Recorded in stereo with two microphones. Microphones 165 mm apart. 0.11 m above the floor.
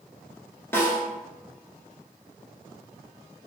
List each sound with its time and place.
0.7 s a snare drum: 15° left (ahead or behind), 0.8 m